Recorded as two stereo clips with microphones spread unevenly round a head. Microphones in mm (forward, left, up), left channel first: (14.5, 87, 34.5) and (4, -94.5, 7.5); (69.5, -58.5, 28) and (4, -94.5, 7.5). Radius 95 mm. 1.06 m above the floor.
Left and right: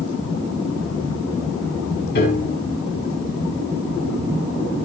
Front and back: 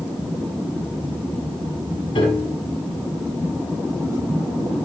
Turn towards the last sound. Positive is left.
turn(degrees=50)